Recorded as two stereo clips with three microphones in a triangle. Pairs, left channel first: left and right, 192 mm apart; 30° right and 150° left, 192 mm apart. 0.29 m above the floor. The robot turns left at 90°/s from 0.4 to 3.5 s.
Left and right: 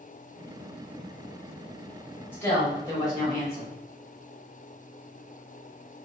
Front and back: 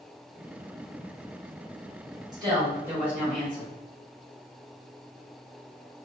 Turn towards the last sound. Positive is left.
turn(degrees=45)